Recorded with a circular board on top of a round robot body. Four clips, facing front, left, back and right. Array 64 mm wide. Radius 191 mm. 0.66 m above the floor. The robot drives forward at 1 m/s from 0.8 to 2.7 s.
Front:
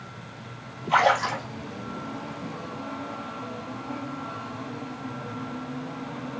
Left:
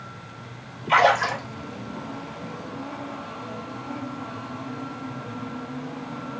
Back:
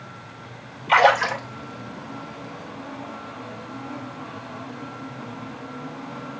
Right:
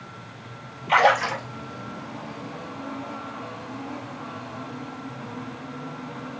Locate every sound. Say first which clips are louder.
0.9 s a splash: even, back 4 dB; 175° right, 3 m